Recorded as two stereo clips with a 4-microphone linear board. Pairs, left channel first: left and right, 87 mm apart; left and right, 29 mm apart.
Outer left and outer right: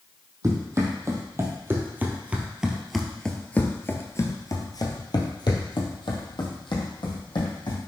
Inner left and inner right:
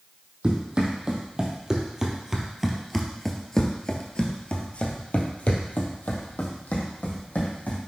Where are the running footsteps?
35° right (ahead or behind), 2.0 m; by 7.8 s 65° left (ahead or behind), 2.5 m.